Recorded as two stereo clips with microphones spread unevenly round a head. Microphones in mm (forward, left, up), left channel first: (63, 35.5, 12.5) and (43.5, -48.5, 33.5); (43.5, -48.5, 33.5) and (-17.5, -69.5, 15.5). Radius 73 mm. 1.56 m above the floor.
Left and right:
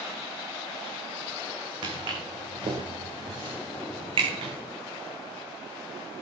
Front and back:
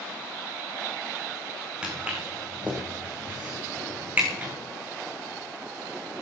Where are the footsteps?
80° right, 6 m; by 4.5 s 95° right, 7.5 m.